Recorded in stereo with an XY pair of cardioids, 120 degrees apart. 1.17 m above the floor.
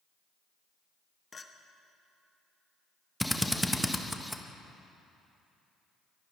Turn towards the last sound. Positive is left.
turn(degrees=5)